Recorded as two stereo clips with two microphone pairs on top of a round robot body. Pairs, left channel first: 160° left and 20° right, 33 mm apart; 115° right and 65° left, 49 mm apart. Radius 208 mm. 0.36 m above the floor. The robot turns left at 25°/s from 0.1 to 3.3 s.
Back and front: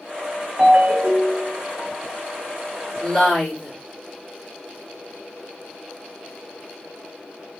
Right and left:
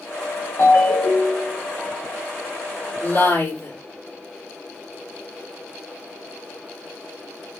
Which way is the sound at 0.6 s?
65° right.